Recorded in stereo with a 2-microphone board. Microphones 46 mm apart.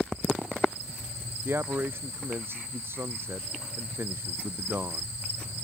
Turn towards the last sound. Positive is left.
turn(degrees=-55)  # may be behind; listen again after turning